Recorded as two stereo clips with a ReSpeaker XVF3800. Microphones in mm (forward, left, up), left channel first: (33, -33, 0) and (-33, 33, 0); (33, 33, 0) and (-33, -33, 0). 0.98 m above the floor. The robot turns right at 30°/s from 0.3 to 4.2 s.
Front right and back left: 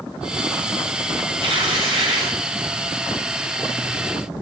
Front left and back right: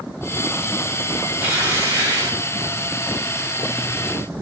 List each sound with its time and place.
1.4 s tearing paper: 155° left, 2.5 m; by 2.4 s 175° right, 2.5 m